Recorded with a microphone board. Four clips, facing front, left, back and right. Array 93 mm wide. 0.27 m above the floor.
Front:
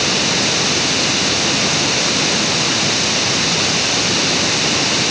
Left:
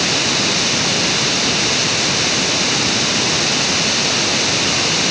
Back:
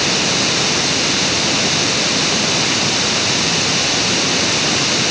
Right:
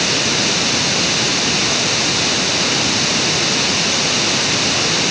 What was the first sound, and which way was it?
Only background noise.